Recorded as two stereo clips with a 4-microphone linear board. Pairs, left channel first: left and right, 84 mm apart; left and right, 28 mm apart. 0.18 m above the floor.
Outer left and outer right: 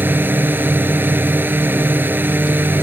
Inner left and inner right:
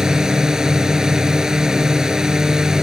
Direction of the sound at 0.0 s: 25° right (ahead or behind).